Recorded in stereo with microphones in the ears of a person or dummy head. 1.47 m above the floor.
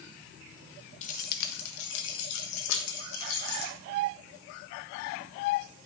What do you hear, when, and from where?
1.0 s keys jangling: 45° left (ahead or behind), 0.8 m; by 3.7 s 65° left (ahead or behind), 1.7 m